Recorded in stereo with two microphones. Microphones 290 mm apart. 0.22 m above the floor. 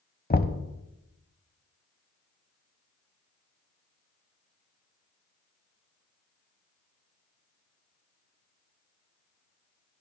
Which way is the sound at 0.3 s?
30° left (ahead or behind).